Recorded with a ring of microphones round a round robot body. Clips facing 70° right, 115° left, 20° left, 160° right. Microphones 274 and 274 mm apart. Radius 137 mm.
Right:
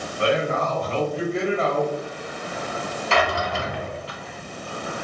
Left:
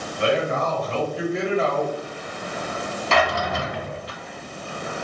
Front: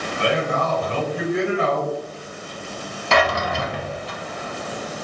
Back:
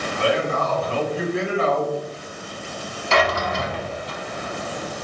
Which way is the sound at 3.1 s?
65° left.